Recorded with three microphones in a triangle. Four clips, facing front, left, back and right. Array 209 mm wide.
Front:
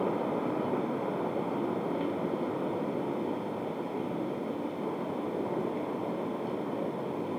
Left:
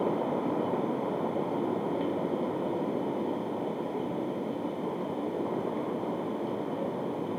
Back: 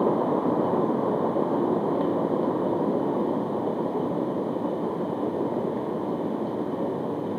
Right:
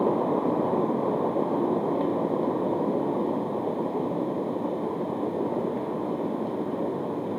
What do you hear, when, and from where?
Only background noise.